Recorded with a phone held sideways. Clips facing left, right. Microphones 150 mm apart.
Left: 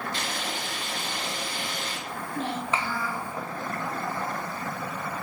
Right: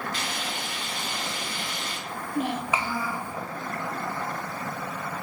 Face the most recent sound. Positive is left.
turn(degrees=-15)  # may be behind; listen again after turning